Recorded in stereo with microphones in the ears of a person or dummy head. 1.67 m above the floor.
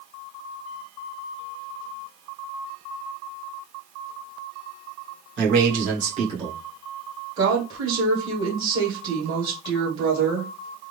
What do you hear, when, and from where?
5.4 s a man speaking: 55° right (ahead or behind), 2.5 m; by 6.6 s 20° right (ahead or behind), 1.6 m
7.4 s a woman speaking: 25° right (ahead or behind), 1.7 m